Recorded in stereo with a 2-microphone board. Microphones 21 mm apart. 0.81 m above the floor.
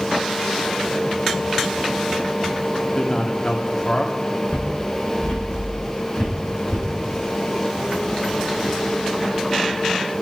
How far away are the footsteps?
About 9.5 m.